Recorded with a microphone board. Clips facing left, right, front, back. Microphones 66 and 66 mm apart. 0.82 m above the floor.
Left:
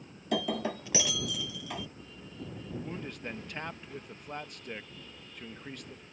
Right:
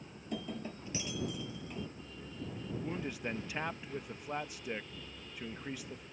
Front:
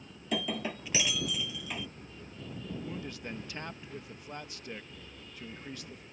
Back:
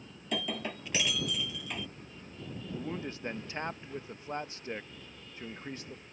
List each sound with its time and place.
0.3 s breaking glass: 85° left
2.7 s a man speaking: 170° right